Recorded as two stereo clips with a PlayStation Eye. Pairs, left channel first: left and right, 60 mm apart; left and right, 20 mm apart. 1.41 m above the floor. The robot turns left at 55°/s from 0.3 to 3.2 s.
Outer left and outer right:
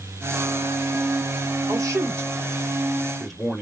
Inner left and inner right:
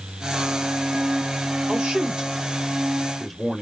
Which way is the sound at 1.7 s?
100° right.